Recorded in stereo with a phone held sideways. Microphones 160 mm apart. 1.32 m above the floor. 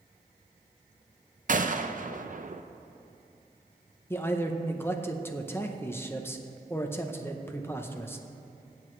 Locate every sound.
1.5 s a gunshot: 55° right (ahead or behind), 0.6 m
4.1 s a man speaking: 15° left (ahead or behind), 0.8 m